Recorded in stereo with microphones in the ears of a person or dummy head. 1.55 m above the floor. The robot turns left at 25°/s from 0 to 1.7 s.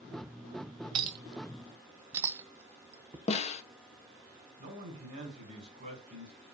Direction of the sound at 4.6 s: 35° right (ahead or behind).